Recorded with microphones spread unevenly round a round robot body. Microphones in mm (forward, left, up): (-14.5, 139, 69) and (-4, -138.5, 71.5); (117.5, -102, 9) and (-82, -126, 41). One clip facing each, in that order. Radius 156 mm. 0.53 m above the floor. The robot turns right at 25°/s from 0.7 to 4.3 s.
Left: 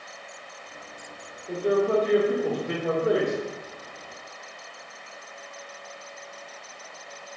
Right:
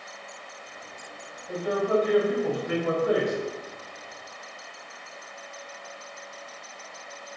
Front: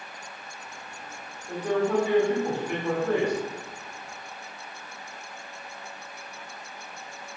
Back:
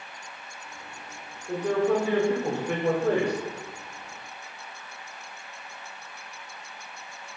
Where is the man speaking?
110° left, 1.2 m; by 3.3 s 155° left, 1.2 m.